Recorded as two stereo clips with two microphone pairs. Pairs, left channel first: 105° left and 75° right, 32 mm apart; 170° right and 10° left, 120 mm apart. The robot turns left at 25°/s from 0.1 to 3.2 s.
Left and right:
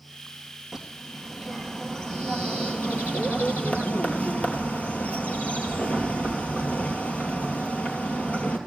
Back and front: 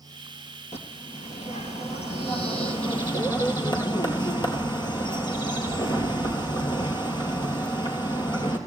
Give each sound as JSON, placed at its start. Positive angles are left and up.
{"t": 0.7, "sound": "a bird", "azimuth_deg": -155, "distance_m": 2.5}